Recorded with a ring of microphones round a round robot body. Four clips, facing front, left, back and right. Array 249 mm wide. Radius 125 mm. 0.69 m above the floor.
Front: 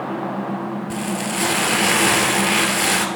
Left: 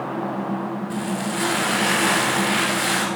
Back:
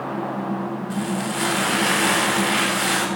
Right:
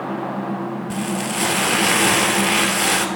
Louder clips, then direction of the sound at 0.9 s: Right 1 dB, back 1 dB; 45° right.